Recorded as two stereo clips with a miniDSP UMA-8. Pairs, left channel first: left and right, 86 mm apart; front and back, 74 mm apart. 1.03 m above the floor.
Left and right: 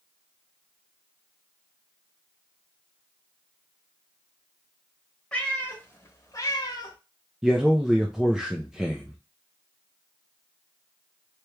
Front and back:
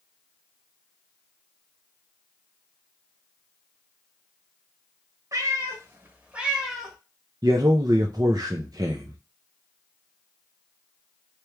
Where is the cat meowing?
165° left, 1.1 m; by 7.0 s 85° left, 1.0 m.